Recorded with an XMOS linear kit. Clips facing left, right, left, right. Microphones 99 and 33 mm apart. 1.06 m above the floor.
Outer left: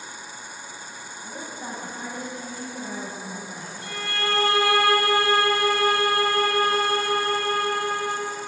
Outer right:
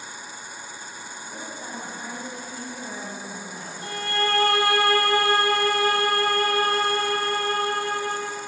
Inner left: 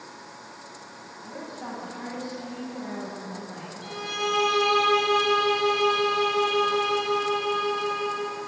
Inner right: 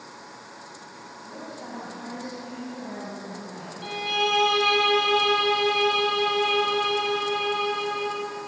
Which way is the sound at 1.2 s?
10° left (ahead or behind).